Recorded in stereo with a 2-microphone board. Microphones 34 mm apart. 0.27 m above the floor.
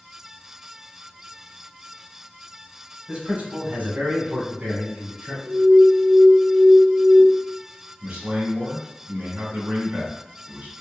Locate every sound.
3.1 s a man speaking: 35° right (ahead or behind), 1.3 m; by 5.3 s 65° right (ahead or behind), 2.5 m
5.5 s an alarm: 20° right (ahead or behind), 0.7 m
8.0 s a man speaking: 60° right (ahead or behind), 1.9 m